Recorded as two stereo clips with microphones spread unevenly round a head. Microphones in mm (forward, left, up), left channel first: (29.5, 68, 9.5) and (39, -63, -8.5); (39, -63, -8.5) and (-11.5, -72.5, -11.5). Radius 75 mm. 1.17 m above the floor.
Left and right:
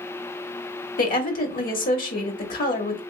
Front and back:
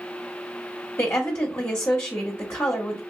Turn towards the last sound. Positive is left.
turn(degrees=75)